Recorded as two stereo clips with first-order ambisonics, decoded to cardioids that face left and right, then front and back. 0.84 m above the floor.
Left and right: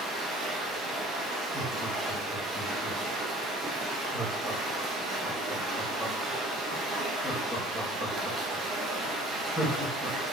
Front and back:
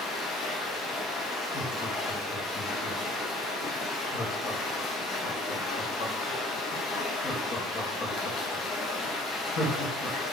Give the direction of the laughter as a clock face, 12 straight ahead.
12 o'clock.